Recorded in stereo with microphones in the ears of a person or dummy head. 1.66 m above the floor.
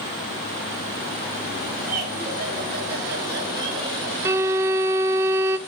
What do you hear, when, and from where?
1.8 s laughter: 45° right (ahead or behind), 5 m; by 4.2 s 65° right (ahead or behind), 4 m
4.2 s a violin: 10° right (ahead or behind), 0.6 m